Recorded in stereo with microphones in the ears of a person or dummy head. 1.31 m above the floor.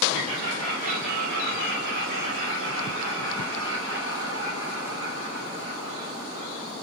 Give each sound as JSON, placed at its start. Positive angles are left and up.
{"t": 0.1, "sound": "laughter", "side_deg": -45, "distance_m": 4.5}